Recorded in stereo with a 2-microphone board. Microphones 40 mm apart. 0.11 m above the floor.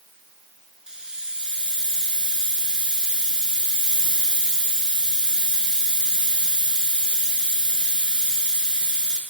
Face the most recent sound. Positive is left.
turn(degrees=-25)  # may be behind; listen again after turning